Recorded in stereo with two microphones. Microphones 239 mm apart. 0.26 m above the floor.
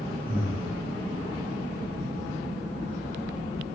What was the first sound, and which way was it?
Breathing, 40° right (ahead or behind).